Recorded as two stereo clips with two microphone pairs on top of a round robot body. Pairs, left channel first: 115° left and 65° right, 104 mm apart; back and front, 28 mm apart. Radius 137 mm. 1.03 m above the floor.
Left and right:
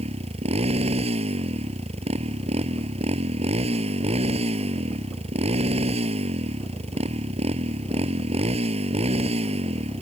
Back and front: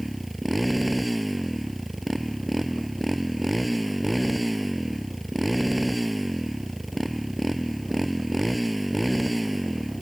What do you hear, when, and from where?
0.0 s a motorcycle: 90° right